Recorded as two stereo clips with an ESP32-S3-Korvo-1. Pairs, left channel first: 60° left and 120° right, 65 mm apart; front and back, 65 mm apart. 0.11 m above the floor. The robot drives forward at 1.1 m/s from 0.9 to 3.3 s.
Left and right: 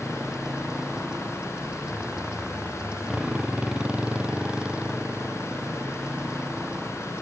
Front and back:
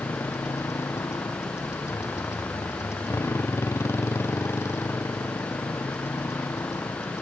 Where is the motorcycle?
40° right; by 7.2 s 45° right.